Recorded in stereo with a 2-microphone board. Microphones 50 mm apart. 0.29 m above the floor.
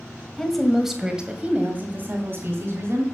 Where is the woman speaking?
10° left (ahead or behind), 1.6 m; by 3.0 s 55° right (ahead or behind), 2.5 m.